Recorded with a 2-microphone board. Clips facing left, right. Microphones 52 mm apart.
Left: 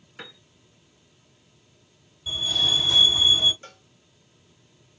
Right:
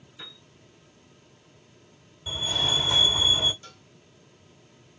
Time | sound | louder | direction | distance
0.2 | a piano | left 4 dB | 60° left (ahead or behind) | 1.5 m
2.3 | a fire alarm | left 2 dB | 25° right (ahead or behind) | 2 m
3.6 | a cowbell | left 2 dB | 35° left (ahead or behind) | 1.9 m